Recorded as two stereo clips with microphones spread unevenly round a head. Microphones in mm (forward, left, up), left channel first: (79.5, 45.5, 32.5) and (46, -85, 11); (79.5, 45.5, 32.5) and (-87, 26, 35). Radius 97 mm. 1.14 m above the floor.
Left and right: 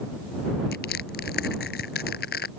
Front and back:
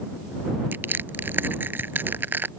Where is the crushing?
110° left.